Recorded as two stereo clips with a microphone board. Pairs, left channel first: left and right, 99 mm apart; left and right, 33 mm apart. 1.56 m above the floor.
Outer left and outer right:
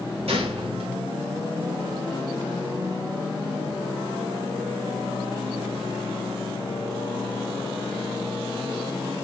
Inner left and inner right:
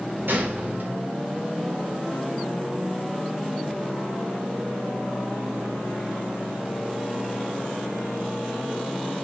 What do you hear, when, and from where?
0.3 s a gunshot: 80° right, 4 m